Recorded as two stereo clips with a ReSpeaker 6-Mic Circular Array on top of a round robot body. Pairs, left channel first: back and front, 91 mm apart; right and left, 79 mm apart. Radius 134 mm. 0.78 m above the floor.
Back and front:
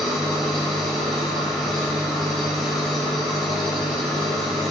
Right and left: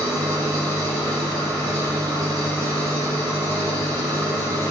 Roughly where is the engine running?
Left.